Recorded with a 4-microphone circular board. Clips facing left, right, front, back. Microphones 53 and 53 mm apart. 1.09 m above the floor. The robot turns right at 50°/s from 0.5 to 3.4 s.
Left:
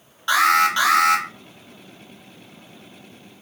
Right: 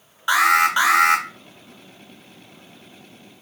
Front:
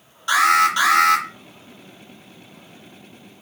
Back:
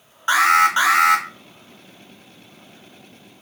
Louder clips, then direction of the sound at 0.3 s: Even, back 1 dB; 160° right.